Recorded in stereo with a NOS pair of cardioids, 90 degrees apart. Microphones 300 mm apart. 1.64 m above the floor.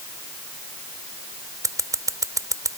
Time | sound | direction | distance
1.6 | scissors | 10° right | ?